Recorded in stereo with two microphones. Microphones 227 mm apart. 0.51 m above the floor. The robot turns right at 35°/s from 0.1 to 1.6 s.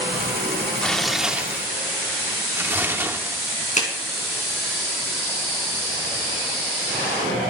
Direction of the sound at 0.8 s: 5° left (ahead or behind).